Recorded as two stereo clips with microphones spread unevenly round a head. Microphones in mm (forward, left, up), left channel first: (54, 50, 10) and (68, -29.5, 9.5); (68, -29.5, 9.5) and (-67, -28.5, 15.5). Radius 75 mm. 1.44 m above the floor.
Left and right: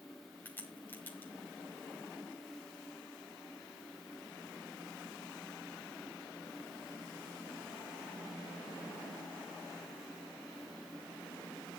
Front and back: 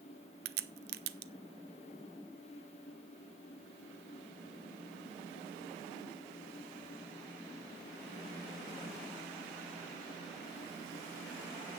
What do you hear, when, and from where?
0.5 s a crack: 175° left, 0.7 m